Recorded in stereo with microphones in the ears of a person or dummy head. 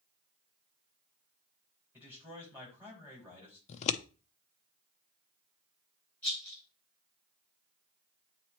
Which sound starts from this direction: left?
Scissors, at 3.7 s.